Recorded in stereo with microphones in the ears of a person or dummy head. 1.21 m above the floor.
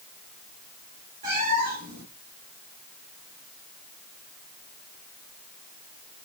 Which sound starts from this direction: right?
A cat meowing, at 1.2 s.